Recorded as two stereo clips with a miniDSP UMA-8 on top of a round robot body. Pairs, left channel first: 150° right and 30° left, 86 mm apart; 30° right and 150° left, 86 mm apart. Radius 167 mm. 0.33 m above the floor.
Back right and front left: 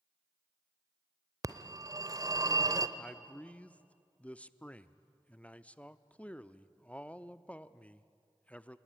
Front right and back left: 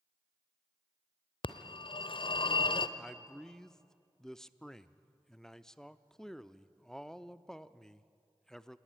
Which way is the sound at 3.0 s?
105° right.